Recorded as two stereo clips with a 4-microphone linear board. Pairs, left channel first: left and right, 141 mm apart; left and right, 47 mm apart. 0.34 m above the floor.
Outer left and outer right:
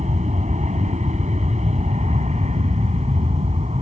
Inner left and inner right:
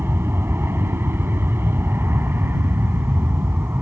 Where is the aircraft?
55° right (ahead or behind); by 3.8 s 50° right (ahead or behind).